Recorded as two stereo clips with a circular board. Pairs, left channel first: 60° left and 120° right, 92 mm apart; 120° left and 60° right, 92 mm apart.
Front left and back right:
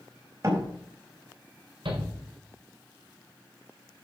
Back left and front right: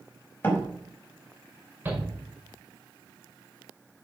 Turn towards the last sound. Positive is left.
turn(degrees=-130)